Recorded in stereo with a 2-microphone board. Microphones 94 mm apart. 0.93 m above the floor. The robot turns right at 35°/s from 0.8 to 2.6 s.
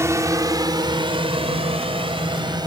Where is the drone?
30° right (ahead or behind); by 2.7 s 50° right (ahead or behind).